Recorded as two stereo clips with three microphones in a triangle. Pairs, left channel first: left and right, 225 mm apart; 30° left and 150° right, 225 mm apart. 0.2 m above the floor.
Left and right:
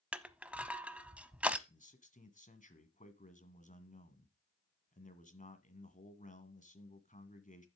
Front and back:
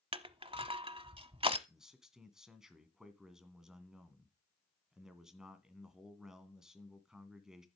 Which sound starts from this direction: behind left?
A man speaking, at 1.7 s.